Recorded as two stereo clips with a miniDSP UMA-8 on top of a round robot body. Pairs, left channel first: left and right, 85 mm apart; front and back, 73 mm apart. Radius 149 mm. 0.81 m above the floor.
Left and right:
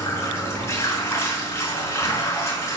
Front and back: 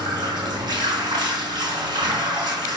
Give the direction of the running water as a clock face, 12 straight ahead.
7 o'clock.